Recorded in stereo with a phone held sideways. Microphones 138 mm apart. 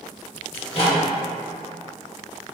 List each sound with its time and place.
0.5 s a microwave: 40° left (ahead or behind), 1.4 m